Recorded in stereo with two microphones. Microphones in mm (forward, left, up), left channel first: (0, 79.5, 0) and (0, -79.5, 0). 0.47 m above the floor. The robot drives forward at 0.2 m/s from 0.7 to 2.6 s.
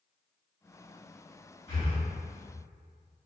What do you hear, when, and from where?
1.7 s breathing: 35° left (ahead or behind), 1.5 m